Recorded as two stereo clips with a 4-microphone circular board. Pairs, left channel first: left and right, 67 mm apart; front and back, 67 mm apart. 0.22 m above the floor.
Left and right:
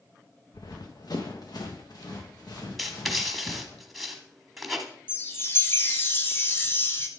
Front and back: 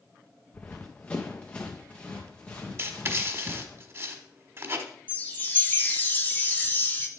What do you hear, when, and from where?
0.5 s running footsteps: 70° left, 1.1 m; by 3.8 s 75° left, 3.5 m
2.8 s writing: straight behind, 1.2 m
5.1 s a chime: 50° left, 1.1 m